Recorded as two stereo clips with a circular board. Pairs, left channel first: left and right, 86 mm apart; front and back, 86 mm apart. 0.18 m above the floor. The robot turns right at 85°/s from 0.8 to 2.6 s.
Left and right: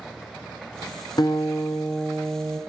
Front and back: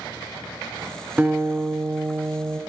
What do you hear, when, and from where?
1.2 s a guitar: 110° left, 0.9 m; by 2.6 s 130° right, 0.9 m